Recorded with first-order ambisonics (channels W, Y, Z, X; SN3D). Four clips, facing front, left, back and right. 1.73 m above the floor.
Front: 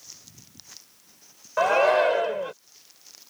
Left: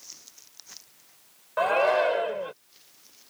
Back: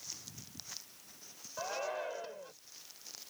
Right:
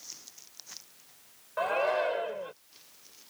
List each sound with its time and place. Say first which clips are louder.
1.6 s a shout: left 6 dB, front 19 dB; 20° left